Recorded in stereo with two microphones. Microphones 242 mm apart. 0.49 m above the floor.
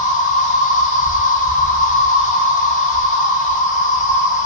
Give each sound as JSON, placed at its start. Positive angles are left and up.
{"t": 0.0, "sound": "an insect", "side_deg": 30, "distance_m": 0.9}